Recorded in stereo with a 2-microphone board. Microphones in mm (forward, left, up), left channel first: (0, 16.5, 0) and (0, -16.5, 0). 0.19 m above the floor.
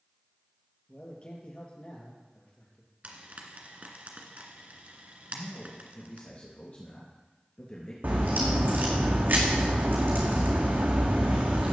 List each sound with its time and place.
0.9 s a man speaking: 35° left (ahead or behind), 3.5 m
3.0 s frying: 45° right (ahead or behind), 1.8 m
5.3 s a man speaking: 35° left (ahead or behind), 2.5 m
8.0 s a crack: 65° right (ahead or behind), 2 m